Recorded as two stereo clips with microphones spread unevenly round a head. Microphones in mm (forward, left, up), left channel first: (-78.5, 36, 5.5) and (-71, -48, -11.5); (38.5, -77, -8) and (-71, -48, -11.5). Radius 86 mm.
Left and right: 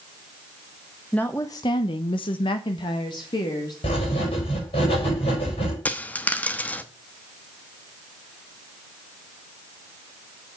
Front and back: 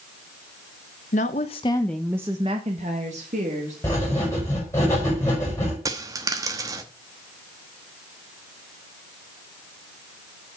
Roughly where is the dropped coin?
Behind left.